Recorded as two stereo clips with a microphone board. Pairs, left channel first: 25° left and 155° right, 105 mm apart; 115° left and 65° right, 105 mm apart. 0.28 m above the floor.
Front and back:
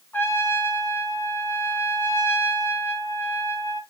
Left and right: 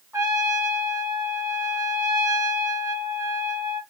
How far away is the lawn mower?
I don't hear a lawn mower.